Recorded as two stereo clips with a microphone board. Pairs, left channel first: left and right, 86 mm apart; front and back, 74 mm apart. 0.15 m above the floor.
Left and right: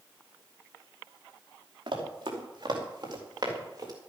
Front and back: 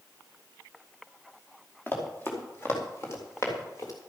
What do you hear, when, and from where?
1.9 s running footsteps: 65° right, 4 m; by 3.9 s 45° right, 3.5 m